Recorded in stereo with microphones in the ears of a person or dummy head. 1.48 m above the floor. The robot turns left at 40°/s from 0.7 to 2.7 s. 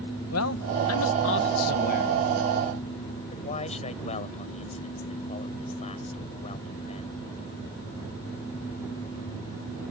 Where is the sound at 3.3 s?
40° left (ahead or behind).